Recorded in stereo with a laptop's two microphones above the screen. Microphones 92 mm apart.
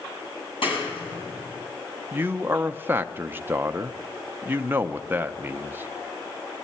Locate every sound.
0.6 s a clap: 75° left (ahead or behind), 6 m
2.1 s a man speaking: 25° right (ahead or behind), 0.5 m